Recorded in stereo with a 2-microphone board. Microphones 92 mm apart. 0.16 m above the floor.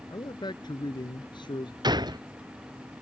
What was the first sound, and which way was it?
A man speaking, 50° left (ahead or behind).